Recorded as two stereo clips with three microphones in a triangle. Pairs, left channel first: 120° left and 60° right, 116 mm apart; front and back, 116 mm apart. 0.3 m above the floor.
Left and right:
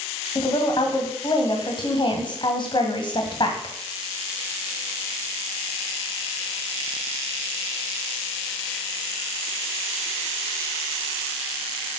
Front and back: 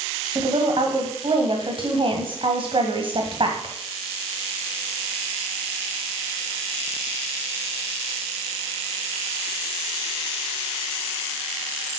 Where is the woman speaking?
155° left, 1.9 m.